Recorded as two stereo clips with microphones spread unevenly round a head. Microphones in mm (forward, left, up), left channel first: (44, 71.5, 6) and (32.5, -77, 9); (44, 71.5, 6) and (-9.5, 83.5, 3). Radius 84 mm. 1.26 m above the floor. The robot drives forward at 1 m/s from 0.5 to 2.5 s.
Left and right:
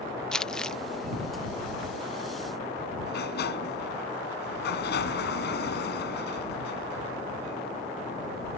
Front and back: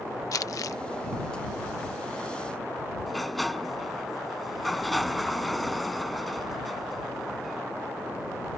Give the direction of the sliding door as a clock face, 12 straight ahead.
9 o'clock.